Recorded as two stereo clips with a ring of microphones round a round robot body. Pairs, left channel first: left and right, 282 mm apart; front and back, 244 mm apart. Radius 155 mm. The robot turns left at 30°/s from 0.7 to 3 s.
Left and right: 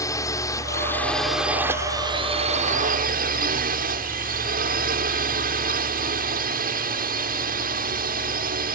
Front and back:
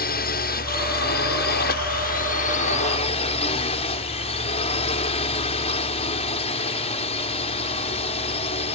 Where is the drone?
15° left; by 8.8 s 50° right.